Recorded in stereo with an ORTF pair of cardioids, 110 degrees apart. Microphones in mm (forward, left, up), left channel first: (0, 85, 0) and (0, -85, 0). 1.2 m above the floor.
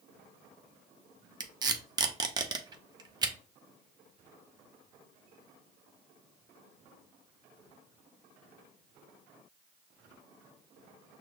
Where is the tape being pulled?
25° right, 0.7 m.